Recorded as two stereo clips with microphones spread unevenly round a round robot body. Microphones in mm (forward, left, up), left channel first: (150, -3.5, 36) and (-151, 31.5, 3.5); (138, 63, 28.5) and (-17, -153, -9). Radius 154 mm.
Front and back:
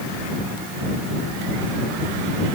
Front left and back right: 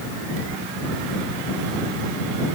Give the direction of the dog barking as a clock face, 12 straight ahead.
No dog barking in this recording.